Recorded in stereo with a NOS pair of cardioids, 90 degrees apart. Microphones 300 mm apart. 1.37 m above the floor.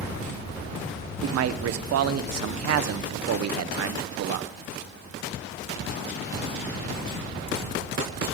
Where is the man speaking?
55° right, 0.7 m.